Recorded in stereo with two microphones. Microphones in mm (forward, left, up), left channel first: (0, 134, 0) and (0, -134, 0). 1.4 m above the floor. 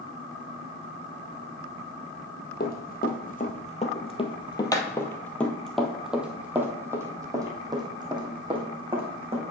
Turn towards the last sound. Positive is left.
turn(degrees=-20)  # may be behind; listen again after turning